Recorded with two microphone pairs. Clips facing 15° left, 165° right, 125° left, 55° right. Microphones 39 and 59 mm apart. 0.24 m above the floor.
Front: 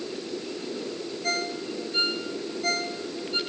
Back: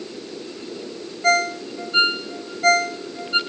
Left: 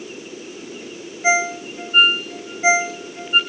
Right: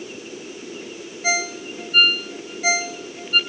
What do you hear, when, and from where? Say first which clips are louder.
1.2 s a ringtone: back 11 dB, left 5 dB; 175° right, 0.8 m